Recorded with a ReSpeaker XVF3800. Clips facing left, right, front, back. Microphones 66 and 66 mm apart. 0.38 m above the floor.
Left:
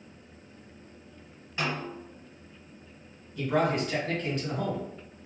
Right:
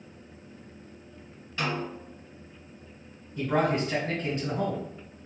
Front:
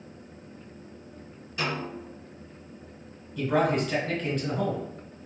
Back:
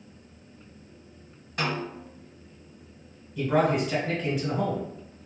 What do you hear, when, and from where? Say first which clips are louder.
1.6 s a snare drum: right 1 dB, back 1 dB; 160° left, 1.6 m
3.4 s a man speaking: right 1 dB, back 1 dB; 105° right, 1.5 m